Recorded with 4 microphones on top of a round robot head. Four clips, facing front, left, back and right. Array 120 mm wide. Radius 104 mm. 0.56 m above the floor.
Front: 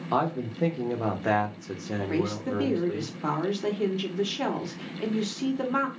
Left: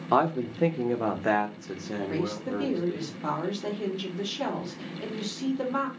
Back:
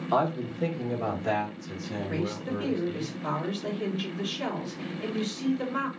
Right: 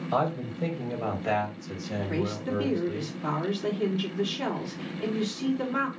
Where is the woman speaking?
10° left, 2 m.